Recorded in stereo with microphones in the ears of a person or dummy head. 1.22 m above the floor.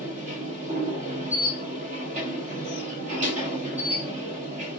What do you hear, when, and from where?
0.0 s a machine running: 40° right (ahead or behind), 1.5 m